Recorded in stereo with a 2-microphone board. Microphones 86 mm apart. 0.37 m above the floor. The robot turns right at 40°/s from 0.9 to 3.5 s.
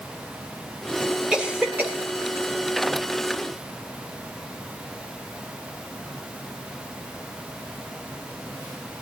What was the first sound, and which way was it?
A cough, 10° right (ahead or behind).